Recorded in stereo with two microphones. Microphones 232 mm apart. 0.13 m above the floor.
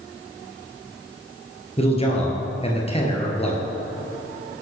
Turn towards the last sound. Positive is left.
turn(degrees=25)  # may be behind; listen again after turning